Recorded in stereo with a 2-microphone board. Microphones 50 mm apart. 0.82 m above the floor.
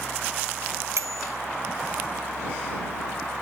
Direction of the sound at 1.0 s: 75° right (ahead or behind).